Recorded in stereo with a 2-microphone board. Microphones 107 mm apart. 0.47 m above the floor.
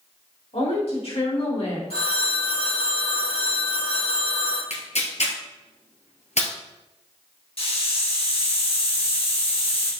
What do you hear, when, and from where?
0.5 s a woman speaking: 70° left (ahead or behind), 3.5 m; by 1.8 s 65° left (ahead or behind), 2.5 m
1.9 s a phone ringing: 65° left (ahead or behind), 2.5 m
4.7 s tearing paper: 80° left, 1.6 m
7.6 s a hiss: 60° left (ahead or behind), 3 m